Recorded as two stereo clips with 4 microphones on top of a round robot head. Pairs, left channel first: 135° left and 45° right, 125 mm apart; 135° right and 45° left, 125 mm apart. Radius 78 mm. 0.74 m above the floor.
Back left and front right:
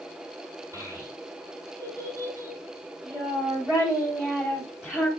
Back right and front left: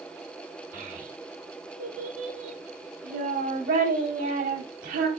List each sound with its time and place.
0.7 s a child speaking: 20° left, 4.5 m; by 5.1 s 40° left, 2.5 m